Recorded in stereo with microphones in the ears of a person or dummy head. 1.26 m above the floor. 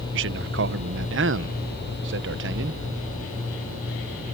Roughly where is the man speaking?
Right.